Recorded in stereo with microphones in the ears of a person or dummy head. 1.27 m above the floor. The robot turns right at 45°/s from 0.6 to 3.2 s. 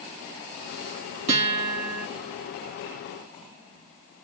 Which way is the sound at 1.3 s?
40° right.